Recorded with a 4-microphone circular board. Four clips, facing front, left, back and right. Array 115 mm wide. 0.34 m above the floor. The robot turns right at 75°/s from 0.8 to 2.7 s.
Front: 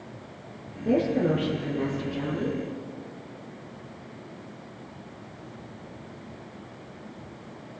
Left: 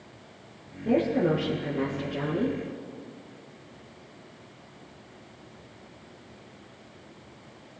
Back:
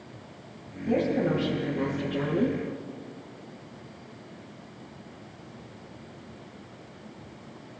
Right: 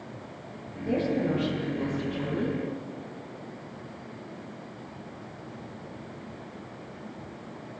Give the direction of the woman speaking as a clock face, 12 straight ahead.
11 o'clock.